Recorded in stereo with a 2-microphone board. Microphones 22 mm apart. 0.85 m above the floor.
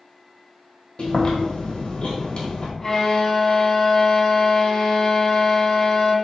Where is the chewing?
45° left (ahead or behind), 1.1 m.